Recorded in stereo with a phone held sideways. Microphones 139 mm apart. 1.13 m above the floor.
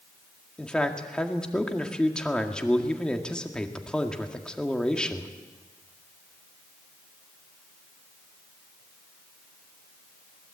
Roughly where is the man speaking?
Centre.